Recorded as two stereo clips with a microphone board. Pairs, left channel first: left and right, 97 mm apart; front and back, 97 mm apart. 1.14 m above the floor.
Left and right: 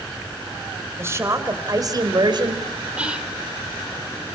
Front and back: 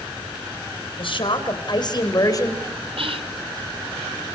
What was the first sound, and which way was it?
A woman speaking, 25° right.